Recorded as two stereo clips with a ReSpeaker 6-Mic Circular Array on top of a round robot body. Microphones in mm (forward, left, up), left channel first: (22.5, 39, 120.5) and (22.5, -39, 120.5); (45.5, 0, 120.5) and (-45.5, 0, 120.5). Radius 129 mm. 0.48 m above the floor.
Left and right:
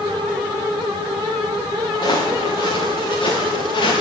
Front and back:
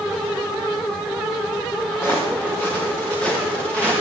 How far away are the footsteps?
About 3 m.